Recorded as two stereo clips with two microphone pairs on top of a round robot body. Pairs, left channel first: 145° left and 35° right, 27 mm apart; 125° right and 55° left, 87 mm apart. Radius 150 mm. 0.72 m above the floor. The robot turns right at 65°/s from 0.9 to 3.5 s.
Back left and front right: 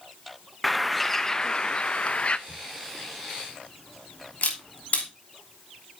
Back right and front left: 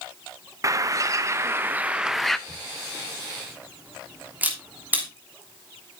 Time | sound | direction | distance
0.6 | a bird | 55° left | 0.7 m
2.5 | a camera shutter | 55° left | 3 m